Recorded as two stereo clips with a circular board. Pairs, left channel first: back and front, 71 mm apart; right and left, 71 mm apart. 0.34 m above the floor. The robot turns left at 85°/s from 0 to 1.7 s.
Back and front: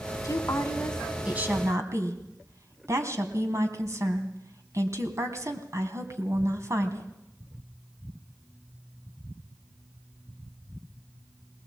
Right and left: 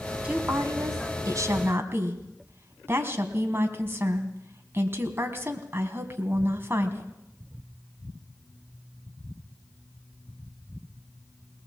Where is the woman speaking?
160° left, 3 m; by 7.1 s 40° left, 3 m.